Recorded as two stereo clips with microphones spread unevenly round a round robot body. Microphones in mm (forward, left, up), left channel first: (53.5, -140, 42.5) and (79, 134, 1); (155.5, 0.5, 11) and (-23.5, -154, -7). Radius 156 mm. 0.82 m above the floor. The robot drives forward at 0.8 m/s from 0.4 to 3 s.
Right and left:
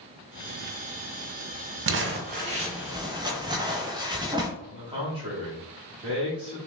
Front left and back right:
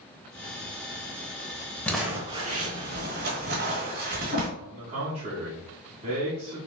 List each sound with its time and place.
1.9 s crumpling: 110° left, 0.6 m; by 4.5 s 165° left, 1.2 m
4.6 s a man speaking: 155° left, 1.8 m